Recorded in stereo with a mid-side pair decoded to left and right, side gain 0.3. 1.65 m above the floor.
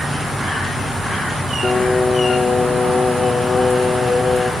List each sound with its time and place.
1.6 s singing: 40° left, 0.5 m